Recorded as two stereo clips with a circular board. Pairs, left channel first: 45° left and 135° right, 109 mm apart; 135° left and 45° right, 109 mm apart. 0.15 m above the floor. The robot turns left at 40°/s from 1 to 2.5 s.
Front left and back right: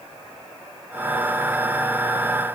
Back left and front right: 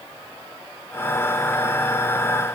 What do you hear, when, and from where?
Only background noise.